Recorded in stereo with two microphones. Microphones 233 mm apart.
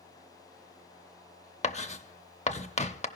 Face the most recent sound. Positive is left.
turn(degrees=30)  # may be behind; listen again after turning